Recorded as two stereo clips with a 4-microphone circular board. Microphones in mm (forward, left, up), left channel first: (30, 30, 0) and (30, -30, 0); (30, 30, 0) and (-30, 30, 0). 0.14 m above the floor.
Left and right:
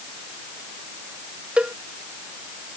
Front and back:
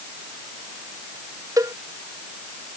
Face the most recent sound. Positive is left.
turn(degrees=-160)